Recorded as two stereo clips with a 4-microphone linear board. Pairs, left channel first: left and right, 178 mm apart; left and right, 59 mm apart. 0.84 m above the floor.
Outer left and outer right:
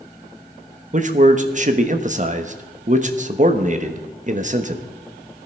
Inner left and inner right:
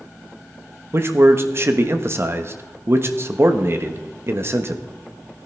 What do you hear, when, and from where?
0.9 s a man speaking: 45° right (ahead or behind), 1.1 m